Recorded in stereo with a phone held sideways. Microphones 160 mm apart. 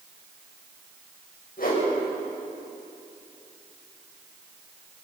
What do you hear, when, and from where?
1.6 s a whoosh: 70° left (ahead or behind), 6 m